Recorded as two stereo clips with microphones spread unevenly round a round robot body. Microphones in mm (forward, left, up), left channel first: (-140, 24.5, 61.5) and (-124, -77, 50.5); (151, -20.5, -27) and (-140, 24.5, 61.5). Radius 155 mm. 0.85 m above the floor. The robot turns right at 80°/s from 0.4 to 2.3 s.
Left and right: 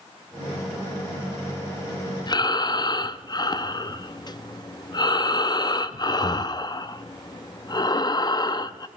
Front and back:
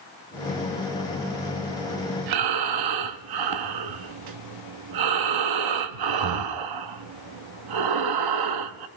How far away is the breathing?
About 0.6 m.